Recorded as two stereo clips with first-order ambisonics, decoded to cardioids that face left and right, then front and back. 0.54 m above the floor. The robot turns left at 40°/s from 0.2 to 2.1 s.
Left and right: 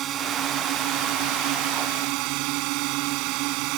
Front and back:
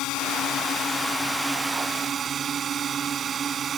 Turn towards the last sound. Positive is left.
turn(degrees=-115)